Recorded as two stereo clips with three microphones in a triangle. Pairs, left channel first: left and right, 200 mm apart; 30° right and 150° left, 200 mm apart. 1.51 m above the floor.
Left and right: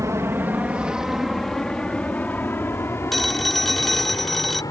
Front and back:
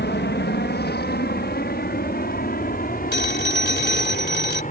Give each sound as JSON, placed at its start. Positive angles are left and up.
{"t": 0.0, "sound": "an aircraft", "azimuth_deg": -15}
{"t": 3.1, "sound": "a phone ringing", "azimuth_deg": 0}